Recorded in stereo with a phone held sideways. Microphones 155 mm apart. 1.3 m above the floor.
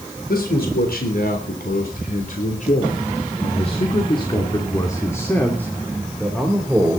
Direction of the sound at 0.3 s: 85° left.